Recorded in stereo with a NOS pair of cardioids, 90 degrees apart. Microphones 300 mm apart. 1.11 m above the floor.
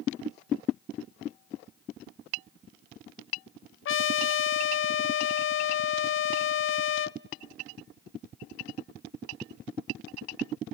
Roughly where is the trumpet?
Ahead left.